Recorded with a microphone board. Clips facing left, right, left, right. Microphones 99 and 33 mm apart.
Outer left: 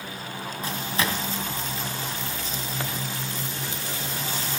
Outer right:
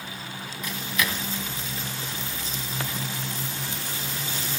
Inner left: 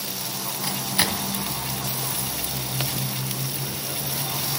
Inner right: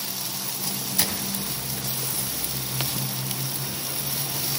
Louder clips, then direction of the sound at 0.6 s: Outer left 1 dB, inner left 5 dB; 30° left (ahead or behind).